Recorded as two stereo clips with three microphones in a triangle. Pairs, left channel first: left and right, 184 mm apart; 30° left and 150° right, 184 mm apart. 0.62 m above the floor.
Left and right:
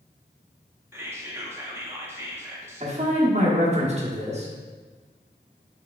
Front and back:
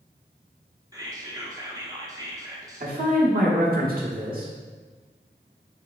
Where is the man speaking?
135° right, 1.2 m.